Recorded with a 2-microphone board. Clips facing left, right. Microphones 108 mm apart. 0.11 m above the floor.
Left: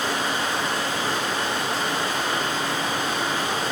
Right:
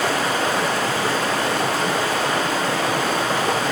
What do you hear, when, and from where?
0.0 s running water: 75° right (ahead or behind), 1.1 m